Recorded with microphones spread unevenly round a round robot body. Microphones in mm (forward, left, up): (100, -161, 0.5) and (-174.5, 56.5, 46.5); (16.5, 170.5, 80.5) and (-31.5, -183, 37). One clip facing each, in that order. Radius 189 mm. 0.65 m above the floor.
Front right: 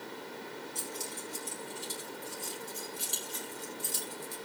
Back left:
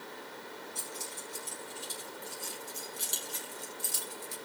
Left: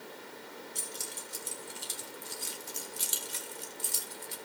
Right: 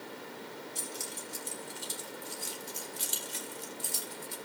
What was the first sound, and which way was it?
Keys jangling, 30° left.